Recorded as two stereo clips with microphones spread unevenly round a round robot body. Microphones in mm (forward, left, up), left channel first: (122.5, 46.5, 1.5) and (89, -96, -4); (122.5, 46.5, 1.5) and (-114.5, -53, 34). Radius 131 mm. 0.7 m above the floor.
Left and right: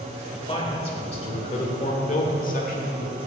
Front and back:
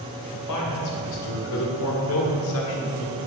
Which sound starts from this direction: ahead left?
A man speaking, at 0.3 s.